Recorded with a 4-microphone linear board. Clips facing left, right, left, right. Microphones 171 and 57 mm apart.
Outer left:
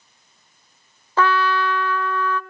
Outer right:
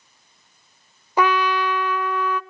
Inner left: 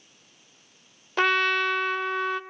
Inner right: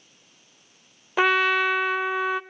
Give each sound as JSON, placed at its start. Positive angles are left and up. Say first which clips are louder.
{"t": 1.2, "sound": "a trumpet", "louder": "even, inner right 2 dB", "side_deg": -15, "distance_m": 0.7}